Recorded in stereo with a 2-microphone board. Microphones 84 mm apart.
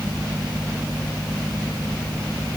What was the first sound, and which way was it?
Only background noise.